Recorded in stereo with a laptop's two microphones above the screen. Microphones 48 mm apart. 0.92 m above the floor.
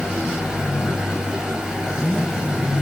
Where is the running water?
15° right (ahead or behind), 3.5 m.